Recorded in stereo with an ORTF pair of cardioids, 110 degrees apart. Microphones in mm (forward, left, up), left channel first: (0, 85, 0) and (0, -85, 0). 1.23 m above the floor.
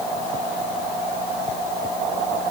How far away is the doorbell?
No doorbell in this recording.